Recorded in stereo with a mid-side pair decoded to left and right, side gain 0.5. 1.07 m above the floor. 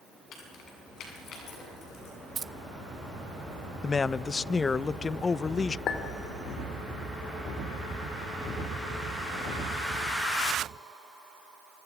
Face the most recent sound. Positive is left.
turn(degrees=60)